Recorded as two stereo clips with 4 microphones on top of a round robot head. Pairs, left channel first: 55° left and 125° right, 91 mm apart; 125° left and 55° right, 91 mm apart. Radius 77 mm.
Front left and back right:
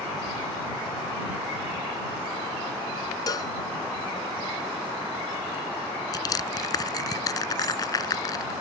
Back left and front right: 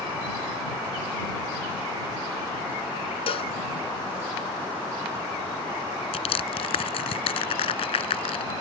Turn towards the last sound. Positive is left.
turn(degrees=105)